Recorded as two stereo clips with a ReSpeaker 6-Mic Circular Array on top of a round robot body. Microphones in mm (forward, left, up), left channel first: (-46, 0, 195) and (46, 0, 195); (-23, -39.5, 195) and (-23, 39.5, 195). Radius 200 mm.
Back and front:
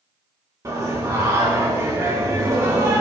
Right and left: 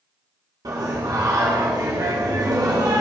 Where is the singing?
55° left, 3 m.